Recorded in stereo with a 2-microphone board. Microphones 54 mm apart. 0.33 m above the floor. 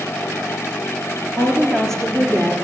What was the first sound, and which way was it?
A woman speaking, 15° left (ahead or behind).